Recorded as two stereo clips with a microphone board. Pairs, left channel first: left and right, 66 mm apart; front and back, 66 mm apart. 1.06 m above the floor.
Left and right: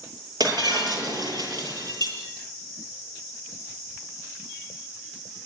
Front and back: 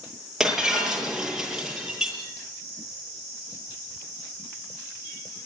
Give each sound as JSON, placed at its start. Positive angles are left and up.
{"t": 0.4, "sound": "breaking glass", "azimuth_deg": -95, "distance_m": 9.0}